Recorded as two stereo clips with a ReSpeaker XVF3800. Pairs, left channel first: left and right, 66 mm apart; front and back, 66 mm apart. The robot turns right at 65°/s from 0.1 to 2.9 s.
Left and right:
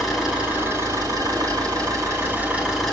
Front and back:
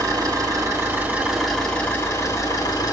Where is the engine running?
Straight behind, 3.5 m; by 2.9 s straight ahead, 3.5 m.